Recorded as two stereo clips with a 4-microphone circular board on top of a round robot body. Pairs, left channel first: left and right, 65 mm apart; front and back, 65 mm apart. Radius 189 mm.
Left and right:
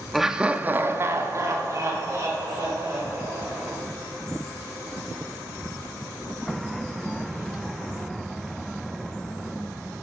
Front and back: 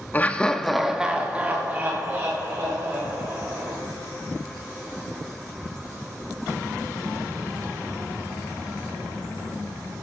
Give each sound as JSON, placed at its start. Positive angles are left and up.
{"t": 0.1, "sound": "laughter", "azimuth_deg": -5, "distance_m": 1.1}